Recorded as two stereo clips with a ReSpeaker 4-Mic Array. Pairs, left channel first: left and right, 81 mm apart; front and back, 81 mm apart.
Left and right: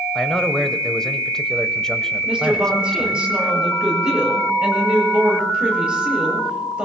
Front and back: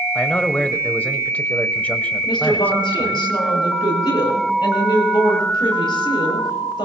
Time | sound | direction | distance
0.1 | a man speaking | 25° left | 0.9 m
2.2 | a woman speaking | 10° right | 6 m